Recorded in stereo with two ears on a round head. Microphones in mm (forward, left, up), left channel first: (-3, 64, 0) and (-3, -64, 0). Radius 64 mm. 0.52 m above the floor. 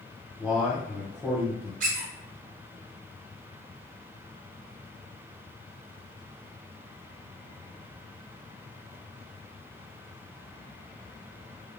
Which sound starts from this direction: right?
A squeak, at 1.8 s.